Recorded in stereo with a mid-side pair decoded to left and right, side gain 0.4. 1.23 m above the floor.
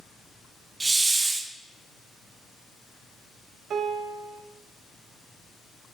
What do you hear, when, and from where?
0.8 s a hiss: 30° right, 0.9 m
3.7 s a piano: 70° right, 1.0 m